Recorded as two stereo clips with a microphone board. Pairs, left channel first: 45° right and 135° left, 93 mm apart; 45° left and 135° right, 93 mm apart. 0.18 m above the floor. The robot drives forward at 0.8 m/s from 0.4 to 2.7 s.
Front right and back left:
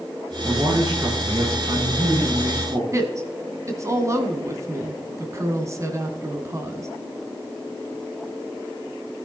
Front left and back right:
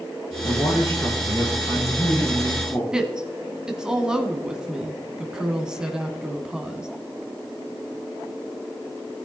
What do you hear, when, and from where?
0.4 s a man speaking: 85° left, 6.5 m; by 2.8 s 100° left, 7 m
2.9 s a woman speaking: 150° left, 1.6 m